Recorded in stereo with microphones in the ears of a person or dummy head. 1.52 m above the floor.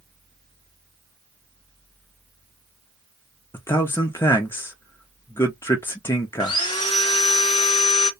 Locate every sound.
3.5 s a man speaking: 15° left (ahead or behind), 0.6 m
6.4 s sawing: 20° left (ahead or behind), 0.6 m